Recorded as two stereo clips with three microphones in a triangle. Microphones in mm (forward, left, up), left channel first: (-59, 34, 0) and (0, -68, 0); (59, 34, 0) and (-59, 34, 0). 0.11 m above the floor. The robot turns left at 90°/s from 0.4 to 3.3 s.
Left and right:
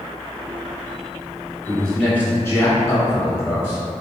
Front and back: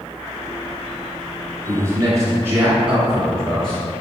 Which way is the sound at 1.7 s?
140° right.